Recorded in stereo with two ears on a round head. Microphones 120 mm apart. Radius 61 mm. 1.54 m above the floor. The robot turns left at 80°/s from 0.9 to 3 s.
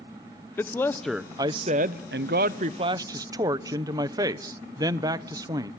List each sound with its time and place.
0.6 s a man speaking: 15° left, 0.8 m; by 5.7 s 155° right, 0.8 m